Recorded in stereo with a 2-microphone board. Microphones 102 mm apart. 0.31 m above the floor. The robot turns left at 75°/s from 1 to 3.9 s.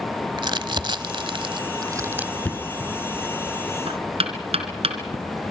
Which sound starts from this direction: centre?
Knocking, at 2.5 s.